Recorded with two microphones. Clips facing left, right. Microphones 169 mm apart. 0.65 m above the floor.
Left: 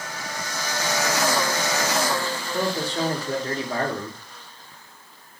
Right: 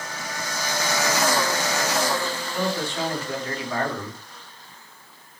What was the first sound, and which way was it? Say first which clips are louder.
A man speaking: left 2 dB; 35° left (ahead or behind).